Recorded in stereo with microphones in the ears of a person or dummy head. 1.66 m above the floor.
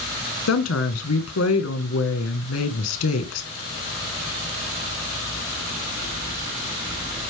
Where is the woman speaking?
85° left, 1.9 m.